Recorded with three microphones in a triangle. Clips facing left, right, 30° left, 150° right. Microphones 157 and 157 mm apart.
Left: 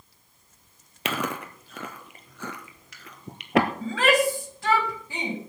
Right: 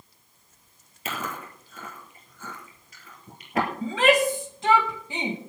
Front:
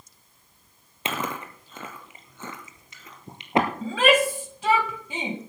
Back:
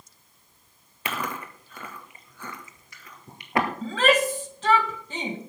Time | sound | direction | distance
1.1 | chewing | 100° left | 1.9 m
3.8 | a shout | 40° right | 1.8 m